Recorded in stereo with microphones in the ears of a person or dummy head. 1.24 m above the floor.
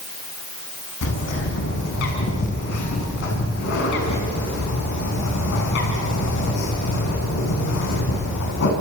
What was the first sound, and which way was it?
A bird, 65° left (ahead or behind).